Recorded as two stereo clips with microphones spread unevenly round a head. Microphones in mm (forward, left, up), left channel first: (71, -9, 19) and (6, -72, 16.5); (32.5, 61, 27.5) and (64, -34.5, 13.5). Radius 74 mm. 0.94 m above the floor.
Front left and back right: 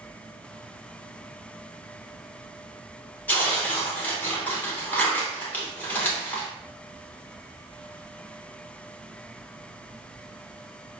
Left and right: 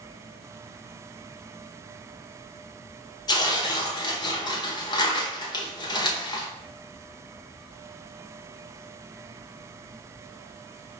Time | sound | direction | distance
3.3 | tearing paper | 105° left | 0.9 m